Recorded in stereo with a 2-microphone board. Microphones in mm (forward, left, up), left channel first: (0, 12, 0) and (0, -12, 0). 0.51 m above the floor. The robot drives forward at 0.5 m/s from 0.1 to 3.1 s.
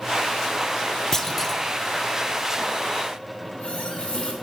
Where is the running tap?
60° left (ahead or behind), 1.6 m.